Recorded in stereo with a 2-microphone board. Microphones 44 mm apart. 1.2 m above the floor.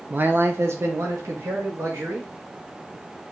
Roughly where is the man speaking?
Right.